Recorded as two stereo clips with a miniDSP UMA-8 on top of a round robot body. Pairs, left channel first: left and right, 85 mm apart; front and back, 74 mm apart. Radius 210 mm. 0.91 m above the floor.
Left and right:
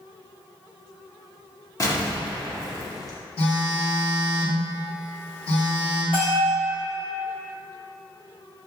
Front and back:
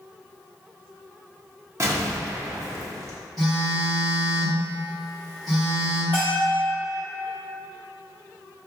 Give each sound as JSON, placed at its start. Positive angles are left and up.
{"t": 1.8, "sound": "an explosion", "azimuth_deg": 140, "distance_m": 1.1}
{"t": 3.4, "sound": "a phone buzzing", "azimuth_deg": 90, "distance_m": 1.5}
{"t": 6.1, "sound": "a bell", "azimuth_deg": 70, "distance_m": 0.9}